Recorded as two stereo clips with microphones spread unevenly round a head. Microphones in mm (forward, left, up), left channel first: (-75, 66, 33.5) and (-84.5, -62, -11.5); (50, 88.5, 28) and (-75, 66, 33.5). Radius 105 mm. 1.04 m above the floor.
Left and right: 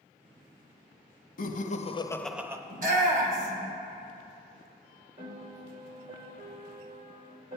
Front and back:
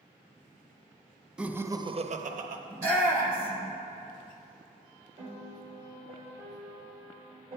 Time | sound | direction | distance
1.4 | laughter | 105° left | 1.0 m
2.7 | a shout | 100° right | 1.8 m
5.2 | a piano | 105° right | 3 m